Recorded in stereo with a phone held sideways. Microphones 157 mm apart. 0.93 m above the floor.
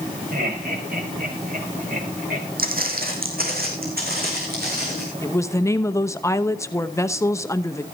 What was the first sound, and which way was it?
Laughter, 65° right (ahead or behind).